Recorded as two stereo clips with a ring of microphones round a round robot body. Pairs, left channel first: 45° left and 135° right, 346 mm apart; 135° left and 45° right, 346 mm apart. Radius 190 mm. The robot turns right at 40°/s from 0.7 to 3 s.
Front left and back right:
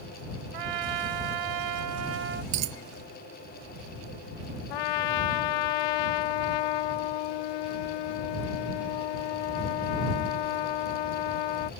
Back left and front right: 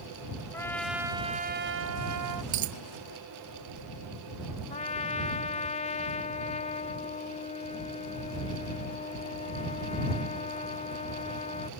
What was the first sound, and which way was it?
A trumpet, 140° right.